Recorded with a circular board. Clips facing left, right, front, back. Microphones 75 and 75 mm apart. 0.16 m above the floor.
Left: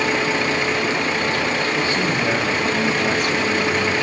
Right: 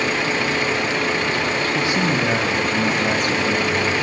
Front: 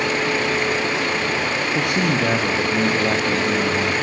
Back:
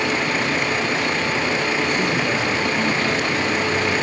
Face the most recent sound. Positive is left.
turn(degrees=0)